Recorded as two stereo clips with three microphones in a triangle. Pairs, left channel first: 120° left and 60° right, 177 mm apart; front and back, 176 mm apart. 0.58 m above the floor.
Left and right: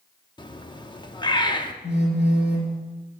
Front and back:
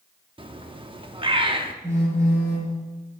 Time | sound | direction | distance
0.4 | a bird | 155° left | 0.7 m
1.8 | a phone buzzing | 105° left | 3 m